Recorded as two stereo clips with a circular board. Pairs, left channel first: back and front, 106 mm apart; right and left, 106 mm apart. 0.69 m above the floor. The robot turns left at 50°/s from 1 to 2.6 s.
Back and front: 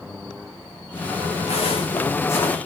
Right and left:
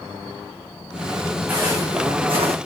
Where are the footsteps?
165° left, 3.5 m; by 2.6 s 100° left, 2.0 m.